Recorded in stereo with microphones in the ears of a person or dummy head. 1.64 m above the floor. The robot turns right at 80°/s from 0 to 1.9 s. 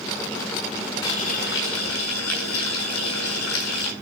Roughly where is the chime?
I don't hear a chime.